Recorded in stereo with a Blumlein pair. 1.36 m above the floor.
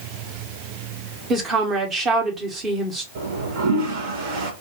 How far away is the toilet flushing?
About 1.1 m.